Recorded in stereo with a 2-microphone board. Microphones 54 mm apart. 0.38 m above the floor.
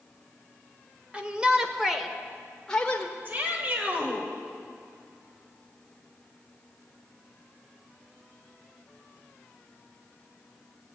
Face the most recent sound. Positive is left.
turn(degrees=-35)  # may be behind; listen again after turning